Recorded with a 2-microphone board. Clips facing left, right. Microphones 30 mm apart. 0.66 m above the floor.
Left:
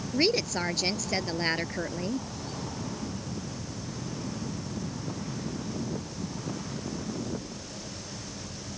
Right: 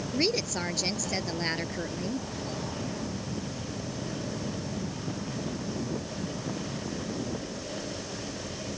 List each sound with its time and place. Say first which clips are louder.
0.1 s a woman speaking: left 3 dB; 15° left (ahead or behind)